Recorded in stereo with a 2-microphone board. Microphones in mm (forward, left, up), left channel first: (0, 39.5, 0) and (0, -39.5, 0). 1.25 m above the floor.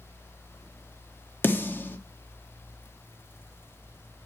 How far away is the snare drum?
About 1.1 m.